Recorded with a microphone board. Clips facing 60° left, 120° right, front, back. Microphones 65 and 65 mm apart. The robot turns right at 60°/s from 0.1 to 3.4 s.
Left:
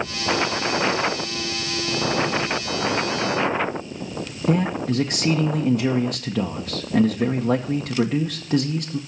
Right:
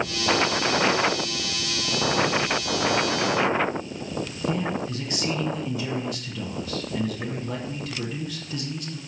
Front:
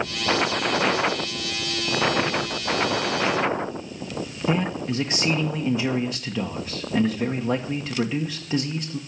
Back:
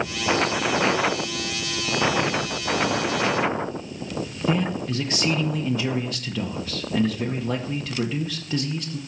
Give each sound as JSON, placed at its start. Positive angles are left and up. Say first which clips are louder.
{"t": 4.5, "sound": "a man speaking", "louder": "left 8 dB, even", "azimuth_deg": 75, "distance_m": 0.9}